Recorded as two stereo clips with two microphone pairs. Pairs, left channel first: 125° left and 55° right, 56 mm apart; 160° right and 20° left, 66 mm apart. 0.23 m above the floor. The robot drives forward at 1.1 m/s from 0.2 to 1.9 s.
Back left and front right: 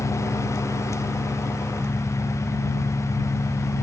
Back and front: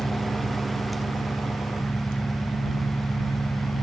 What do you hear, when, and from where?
0.0 s an engine running: 140° left; by 3.8 s 155° left